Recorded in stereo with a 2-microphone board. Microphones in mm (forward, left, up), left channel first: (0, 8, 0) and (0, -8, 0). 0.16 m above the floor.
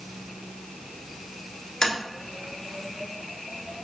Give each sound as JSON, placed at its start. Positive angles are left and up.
{"t": 1.8, "sound": "tapping", "side_deg": 45, "distance_m": 1.0}